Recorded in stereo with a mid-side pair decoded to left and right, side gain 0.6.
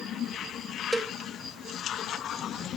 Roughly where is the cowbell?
Ahead.